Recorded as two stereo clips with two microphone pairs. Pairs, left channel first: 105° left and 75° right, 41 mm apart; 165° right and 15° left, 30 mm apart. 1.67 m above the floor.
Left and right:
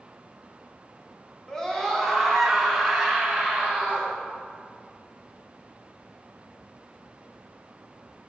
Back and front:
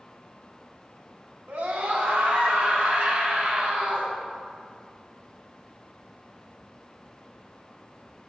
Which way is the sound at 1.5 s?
30° left.